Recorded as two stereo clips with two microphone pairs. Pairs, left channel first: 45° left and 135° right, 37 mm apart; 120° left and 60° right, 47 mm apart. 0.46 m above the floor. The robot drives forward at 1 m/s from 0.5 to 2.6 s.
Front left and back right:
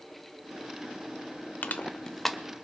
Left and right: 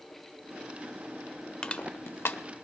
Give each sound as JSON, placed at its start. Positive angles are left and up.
{"t": 1.6, "sound": "crushing", "azimuth_deg": 55, "distance_m": 0.6}